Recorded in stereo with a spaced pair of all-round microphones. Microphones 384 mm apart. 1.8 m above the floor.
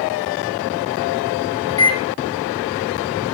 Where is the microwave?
10° left (ahead or behind), 0.7 m.